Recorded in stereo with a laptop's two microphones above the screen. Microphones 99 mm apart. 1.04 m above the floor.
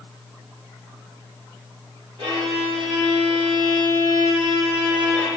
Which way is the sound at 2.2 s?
65° right (ahead or behind).